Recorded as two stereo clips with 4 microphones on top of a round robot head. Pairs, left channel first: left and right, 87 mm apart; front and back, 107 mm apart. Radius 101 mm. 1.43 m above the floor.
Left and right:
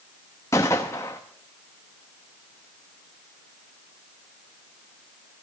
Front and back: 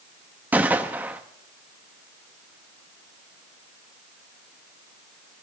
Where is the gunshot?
125° left, 0.8 m.